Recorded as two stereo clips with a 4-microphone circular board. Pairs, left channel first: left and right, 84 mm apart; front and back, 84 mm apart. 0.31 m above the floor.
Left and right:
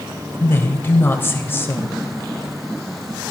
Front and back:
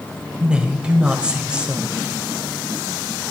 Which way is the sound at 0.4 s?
115° left.